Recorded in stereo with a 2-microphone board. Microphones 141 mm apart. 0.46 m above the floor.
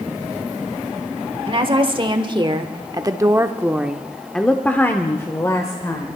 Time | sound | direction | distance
1.5 | a woman speaking | 40° right (ahead or behind) | 1.4 m